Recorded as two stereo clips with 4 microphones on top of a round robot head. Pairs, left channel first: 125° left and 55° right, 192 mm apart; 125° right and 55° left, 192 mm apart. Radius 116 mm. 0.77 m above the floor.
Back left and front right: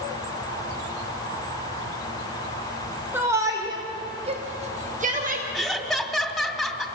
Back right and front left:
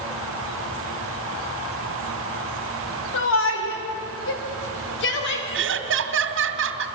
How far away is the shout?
About 2.5 m.